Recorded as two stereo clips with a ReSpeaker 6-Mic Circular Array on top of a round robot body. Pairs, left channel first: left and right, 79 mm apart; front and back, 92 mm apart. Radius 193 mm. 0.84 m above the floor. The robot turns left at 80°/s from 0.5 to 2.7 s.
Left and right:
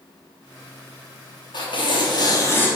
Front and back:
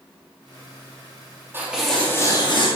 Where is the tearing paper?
115° left, 3 m; by 2.7 s 25° left, 3 m.